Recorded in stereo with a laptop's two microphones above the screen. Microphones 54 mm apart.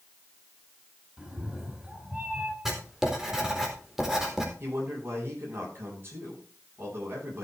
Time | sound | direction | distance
1.2 | a cat meowing | 20° right (ahead or behind) | 2.5 m
2.6 | writing | 5° right (ahead or behind) | 4 m
4.6 | a man speaking | 45° right (ahead or behind) | 10 m